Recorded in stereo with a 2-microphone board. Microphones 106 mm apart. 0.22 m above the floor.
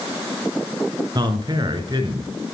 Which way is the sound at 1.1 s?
40° right (ahead or behind).